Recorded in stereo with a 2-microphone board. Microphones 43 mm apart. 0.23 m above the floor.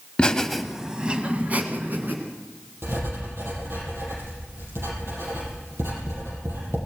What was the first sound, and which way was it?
Laughter, 25° left (ahead or behind).